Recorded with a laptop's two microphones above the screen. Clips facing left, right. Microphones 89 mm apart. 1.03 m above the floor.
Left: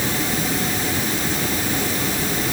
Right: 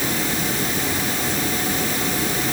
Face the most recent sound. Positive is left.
No sound to turn to.